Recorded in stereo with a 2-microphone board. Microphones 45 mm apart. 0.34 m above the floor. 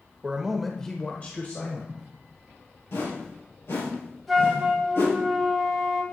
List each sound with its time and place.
0.2 s a man speaking: 20° right (ahead or behind), 0.9 m; by 2.0 s 50° left (ahead or behind), 1.4 m
2.9 s a whoosh: 70° left (ahead or behind), 2.5 m
4.3 s a flute: 5° left (ahead or behind), 1.4 m